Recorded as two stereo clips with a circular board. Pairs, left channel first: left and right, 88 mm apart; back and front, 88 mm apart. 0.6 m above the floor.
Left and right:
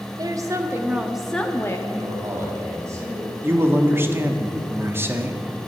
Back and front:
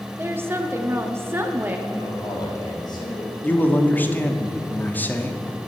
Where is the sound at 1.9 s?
145° right, 3 m.